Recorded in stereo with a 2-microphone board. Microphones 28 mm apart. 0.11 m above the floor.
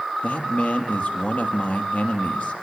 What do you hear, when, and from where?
0.2 s a man speaking: 65° left (ahead or behind), 3 m